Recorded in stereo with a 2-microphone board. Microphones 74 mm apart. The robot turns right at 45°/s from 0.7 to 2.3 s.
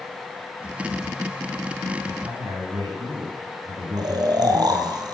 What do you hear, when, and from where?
2.0 s a man speaking: 75° right (ahead or behind), 8 m; by 5.0 s 80° right, 8 m
4.0 s snoring: 65° right (ahead or behind), 1.7 m